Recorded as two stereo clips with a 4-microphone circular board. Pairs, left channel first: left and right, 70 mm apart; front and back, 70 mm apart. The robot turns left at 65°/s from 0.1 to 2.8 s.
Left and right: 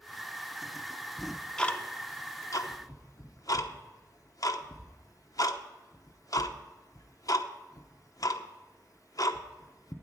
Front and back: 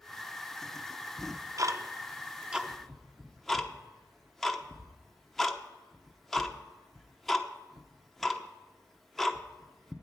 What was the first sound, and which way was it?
Ticking, 170° right.